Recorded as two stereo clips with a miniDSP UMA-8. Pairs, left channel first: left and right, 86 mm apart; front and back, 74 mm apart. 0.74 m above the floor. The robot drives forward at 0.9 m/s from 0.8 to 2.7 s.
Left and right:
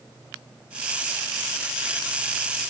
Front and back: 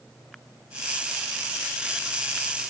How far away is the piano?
No piano in this recording.